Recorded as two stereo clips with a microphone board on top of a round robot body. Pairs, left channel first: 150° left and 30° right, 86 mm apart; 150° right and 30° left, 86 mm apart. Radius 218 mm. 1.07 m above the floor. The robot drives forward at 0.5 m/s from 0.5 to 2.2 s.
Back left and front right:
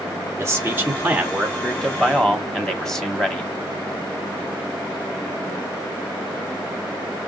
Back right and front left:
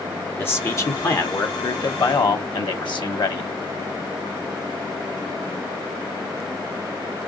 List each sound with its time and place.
0.4 s a man speaking: 85° right, 1.2 m; by 3.5 s 125° right, 1.5 m